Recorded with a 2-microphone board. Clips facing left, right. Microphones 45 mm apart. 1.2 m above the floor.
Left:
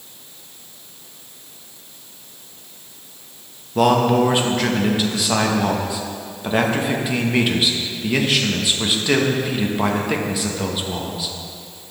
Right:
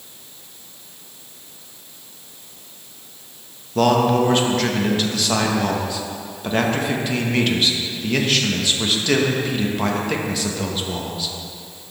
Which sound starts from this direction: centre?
A man speaking, at 3.8 s.